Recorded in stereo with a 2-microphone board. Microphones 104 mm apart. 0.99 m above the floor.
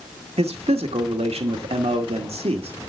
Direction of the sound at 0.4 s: 85° right.